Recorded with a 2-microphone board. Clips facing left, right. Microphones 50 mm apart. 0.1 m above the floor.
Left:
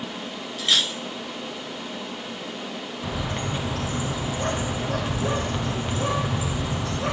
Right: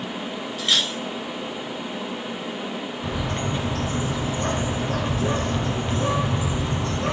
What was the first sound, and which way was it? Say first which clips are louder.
Cutlery clinking: even; centre (ahead or behind).